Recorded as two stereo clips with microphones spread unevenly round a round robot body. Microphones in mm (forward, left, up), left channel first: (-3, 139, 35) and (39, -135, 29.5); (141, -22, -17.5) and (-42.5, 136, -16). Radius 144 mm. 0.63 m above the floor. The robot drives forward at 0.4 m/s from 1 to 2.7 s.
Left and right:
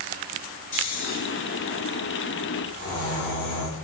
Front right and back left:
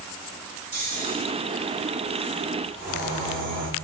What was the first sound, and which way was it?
Snoring, 35° left.